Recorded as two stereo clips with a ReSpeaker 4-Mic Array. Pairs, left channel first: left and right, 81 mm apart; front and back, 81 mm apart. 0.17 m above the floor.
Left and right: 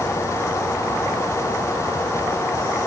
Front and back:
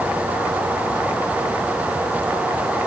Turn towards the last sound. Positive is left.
No sound to turn to.